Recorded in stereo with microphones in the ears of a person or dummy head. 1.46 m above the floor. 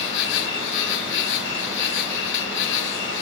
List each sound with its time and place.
0.0 s an insect: 65° left (ahead or behind), 0.8 m